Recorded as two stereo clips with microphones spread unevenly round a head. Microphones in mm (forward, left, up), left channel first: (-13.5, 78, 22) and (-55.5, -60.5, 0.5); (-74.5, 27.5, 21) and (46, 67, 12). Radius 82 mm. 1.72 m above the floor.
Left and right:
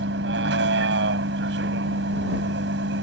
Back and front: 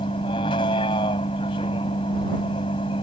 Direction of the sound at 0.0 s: 100° right.